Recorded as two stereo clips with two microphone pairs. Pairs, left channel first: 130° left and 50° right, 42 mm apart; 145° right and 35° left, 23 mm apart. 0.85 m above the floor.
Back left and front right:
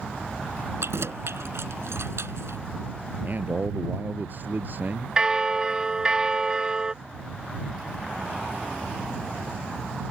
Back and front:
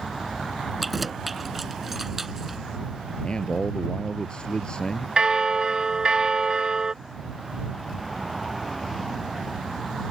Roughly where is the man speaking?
Right.